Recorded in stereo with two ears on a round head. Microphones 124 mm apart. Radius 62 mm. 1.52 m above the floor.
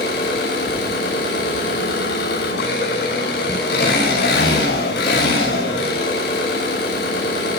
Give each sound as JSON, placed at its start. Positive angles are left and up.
{"t": 0.0, "sound": "an engine running", "side_deg": 85, "distance_m": 7.5}